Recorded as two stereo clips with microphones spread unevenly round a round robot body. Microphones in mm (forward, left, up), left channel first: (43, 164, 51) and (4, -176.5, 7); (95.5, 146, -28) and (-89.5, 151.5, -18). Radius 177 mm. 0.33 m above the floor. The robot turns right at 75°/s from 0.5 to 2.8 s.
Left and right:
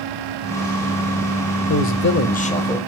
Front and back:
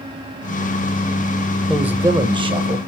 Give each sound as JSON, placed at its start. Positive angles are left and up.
{"t": 1.7, "sound": "a man speaking", "azimuth_deg": 90, "distance_m": 0.9}